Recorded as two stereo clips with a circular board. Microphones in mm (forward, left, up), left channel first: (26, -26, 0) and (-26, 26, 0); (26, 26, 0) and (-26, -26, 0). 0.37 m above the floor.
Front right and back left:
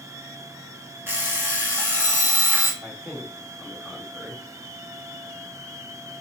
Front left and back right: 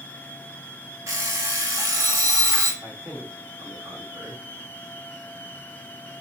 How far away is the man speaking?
About 1.7 m.